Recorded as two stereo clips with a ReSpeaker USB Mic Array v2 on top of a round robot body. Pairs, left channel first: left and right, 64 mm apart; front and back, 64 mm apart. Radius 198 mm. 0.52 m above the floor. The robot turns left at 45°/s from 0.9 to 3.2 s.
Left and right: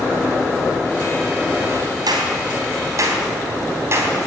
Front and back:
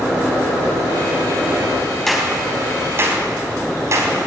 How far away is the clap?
About 4 m.